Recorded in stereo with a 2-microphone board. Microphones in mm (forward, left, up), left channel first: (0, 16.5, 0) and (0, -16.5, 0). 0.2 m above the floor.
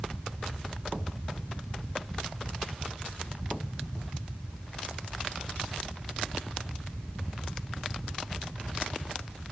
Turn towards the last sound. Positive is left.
No sound to turn to.